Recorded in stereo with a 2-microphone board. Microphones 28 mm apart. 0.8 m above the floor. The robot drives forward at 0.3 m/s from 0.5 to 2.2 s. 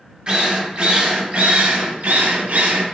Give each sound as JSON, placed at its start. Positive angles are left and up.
{"t": 0.3, "sound": "a drill", "side_deg": -35, "distance_m": 0.7}